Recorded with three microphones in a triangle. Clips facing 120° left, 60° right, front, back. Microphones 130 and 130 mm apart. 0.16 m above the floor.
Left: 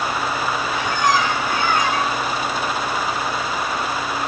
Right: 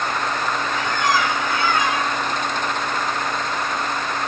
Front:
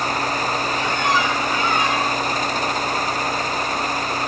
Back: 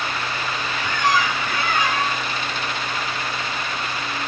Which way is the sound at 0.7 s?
165° left.